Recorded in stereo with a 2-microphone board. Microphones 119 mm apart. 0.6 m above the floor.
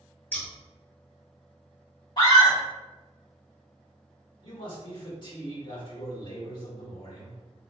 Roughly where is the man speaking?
Left.